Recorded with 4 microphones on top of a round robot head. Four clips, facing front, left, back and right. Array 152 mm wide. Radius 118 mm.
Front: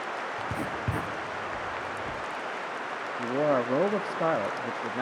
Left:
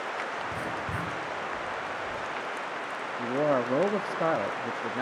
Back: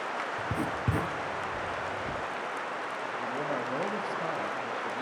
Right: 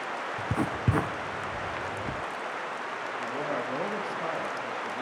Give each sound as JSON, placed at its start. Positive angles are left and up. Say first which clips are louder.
{"t": 0.4, "sound": "writing", "louder": "right 3 dB, even", "azimuth_deg": -100, "distance_m": 1.6}
{"t": 3.2, "sound": "a man speaking", "louder": "left 8 dB, front 9 dB", "azimuth_deg": 40, "distance_m": 1.0}